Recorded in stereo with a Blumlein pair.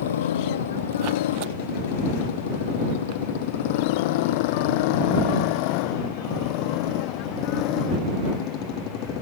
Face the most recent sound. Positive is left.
turn(degrees=40)